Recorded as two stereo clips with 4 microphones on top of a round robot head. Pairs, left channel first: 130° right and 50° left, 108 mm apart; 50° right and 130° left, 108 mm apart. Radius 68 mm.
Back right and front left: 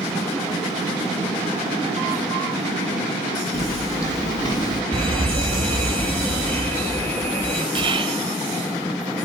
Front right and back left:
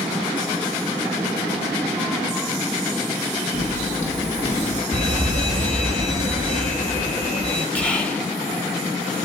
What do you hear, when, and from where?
3.5 s footsteps: 70° right, 3 m; by 4.8 s 80° right, 1.9 m
4.9 s an alarm: 65° right, 4 m
7.8 s whispering: 30° left, 1.2 m